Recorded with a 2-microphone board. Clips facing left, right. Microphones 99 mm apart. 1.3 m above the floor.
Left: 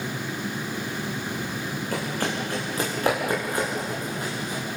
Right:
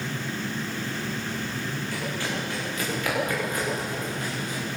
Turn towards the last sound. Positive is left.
turn(degrees=25)  # may be behind; listen again after turning